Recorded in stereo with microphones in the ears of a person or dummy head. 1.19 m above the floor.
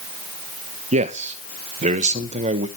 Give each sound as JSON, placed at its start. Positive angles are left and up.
{"t": 0.9, "sound": "a man speaking", "side_deg": -30, "distance_m": 1.0}